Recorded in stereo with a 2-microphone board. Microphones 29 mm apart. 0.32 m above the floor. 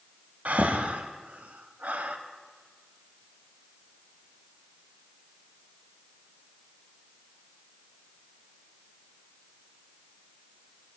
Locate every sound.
0.5 s breathing: 65° right (ahead or behind), 0.5 m